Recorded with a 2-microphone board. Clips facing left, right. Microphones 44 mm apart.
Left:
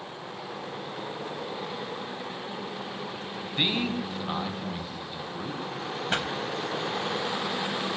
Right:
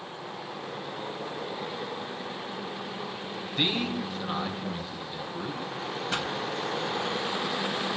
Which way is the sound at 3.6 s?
20° left (ahead or behind).